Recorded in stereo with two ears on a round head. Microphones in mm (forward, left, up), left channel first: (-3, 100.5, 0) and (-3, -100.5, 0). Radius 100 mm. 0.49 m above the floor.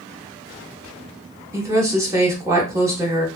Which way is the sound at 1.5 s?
15° right (ahead or behind).